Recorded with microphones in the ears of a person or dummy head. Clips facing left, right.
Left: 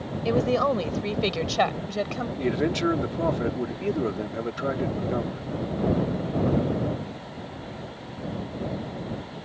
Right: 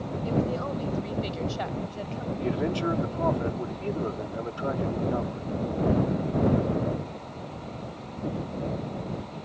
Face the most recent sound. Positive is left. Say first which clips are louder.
# left 3 dB
turn(degrees=25)  # may be behind; listen again after turning